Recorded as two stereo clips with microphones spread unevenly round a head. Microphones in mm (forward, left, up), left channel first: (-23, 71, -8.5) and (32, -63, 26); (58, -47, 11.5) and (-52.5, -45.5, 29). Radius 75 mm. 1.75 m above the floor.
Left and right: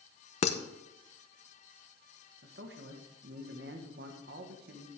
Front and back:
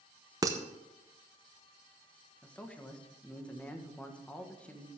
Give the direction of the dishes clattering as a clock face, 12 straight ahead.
7 o'clock.